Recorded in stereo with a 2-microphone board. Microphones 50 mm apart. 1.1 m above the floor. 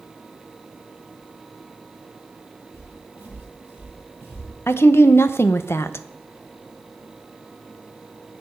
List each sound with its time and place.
2.7 s footsteps: 65° left (ahead or behind), 6 m; by 4.5 s 60° left (ahead or behind), 5 m
4.7 s a woman speaking: 55° left (ahead or behind), 0.6 m